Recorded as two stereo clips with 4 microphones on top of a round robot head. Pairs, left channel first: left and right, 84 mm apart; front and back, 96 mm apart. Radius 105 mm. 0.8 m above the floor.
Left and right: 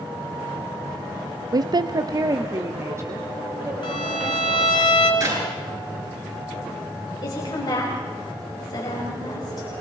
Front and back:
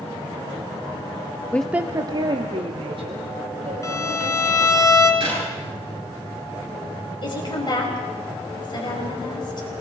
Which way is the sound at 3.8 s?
55° left.